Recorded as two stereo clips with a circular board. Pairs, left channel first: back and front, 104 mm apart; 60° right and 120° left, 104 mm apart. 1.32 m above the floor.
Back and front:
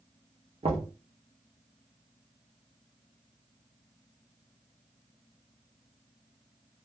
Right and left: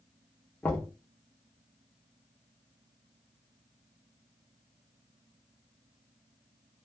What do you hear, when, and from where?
0.6 s knocking: 15° left, 1.0 m